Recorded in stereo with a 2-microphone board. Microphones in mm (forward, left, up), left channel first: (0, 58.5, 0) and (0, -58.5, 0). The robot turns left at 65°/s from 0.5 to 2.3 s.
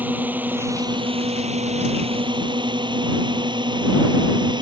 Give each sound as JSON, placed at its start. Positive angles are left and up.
{"t": 0.0, "sound": "a drone", "side_deg": -15}